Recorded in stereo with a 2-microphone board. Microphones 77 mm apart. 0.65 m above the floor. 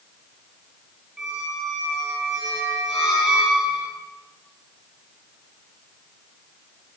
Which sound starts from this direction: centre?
A squeak, at 1.2 s.